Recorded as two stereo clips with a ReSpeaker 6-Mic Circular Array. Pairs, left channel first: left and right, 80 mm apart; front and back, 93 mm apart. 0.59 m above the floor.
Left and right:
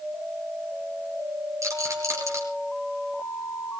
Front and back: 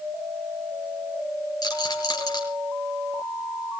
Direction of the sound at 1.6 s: 40° right.